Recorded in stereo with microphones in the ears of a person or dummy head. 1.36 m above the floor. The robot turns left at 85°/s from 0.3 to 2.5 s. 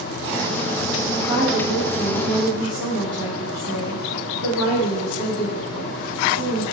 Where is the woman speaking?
Straight ahead, 3 m; by 6.6 s 120° right, 3 m.